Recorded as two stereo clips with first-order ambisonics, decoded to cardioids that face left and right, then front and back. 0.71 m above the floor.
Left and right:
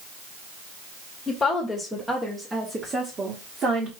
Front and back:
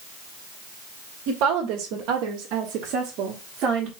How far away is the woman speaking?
About 1.8 m.